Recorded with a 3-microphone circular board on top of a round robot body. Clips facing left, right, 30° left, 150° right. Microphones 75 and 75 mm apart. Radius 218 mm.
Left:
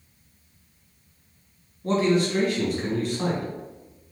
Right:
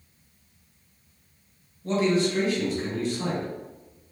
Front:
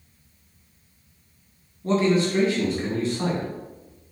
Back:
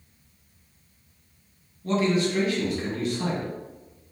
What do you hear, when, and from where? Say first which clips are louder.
1.8 s a man speaking: left 1 dB, front 3 dB; 75° left, 1.6 m